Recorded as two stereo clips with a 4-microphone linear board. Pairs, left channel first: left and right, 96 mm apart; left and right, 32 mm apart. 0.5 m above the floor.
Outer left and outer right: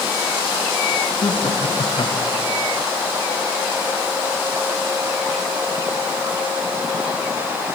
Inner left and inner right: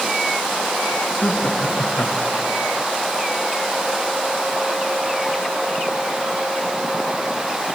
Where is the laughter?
65° left (ahead or behind), 4 m; by 2.5 s 45° left (ahead or behind), 5 m.